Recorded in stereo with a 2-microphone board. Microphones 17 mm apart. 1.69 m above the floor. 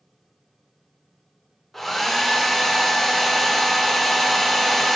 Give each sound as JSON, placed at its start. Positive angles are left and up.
{"t": 1.7, "sound": "a hair dryer", "side_deg": 5, "distance_m": 1.8}